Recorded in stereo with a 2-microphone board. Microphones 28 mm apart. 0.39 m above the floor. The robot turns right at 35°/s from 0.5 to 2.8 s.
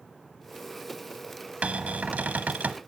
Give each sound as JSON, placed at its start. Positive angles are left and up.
{"t": 1.6, "sound": "a cupboard door", "azimuth_deg": -115, "distance_m": 0.9}